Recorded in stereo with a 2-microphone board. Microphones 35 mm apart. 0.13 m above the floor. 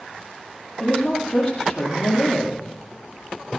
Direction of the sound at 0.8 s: 10° left (ahead or behind).